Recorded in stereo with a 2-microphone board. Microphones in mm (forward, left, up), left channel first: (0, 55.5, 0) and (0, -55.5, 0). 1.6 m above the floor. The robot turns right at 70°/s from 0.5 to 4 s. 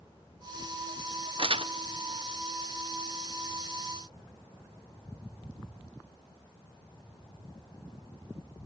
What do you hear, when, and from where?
1.4 s crumpling: 55° right (ahead or behind), 0.6 m; by 1.7 s 50° right (ahead or behind), 0.6 m